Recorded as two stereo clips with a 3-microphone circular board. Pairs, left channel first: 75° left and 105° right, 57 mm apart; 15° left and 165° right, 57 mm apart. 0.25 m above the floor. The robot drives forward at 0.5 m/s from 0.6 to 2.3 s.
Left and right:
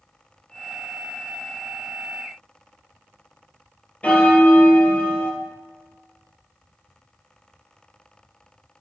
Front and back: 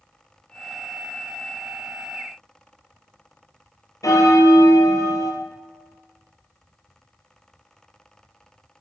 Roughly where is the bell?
Ahead.